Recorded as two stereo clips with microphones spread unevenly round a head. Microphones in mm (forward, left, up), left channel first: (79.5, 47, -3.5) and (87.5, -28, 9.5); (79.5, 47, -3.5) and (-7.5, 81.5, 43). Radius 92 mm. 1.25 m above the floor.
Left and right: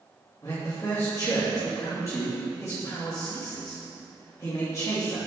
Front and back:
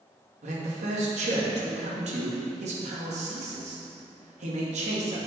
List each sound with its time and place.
0.4 s a man speaking: 165° left, 2.5 m